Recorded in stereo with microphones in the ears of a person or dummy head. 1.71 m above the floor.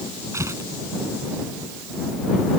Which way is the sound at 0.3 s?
15° right (ahead or behind).